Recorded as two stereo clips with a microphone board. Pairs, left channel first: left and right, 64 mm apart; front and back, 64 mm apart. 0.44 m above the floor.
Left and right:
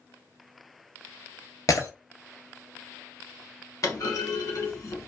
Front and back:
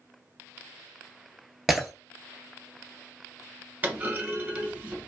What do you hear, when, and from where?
1.7 s breaking glass: 95° left, 0.6 m
3.8 s a clunk: 120° left, 0.8 m